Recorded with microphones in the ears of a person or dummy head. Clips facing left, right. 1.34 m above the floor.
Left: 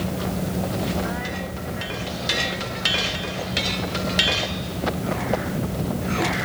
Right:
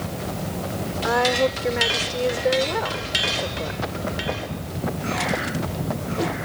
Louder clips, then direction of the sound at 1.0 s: Right 9 dB; 85° right.